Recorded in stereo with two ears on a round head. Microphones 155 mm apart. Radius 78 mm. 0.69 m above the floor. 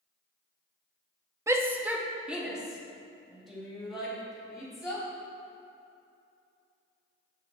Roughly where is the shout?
Centre.